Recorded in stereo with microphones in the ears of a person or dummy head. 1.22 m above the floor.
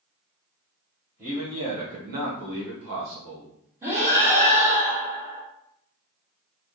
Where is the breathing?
15° right (ahead or behind), 0.9 m.